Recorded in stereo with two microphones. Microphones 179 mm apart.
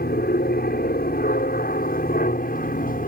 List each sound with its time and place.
0.0 s an aircraft: 60° left (ahead or behind); by 3.1 s 50° left (ahead or behind)